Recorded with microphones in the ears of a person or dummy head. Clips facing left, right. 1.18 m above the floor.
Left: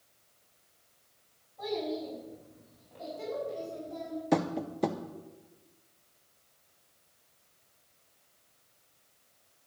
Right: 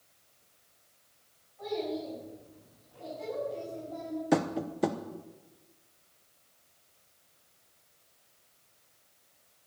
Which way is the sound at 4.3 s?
Centre (ahead or behind).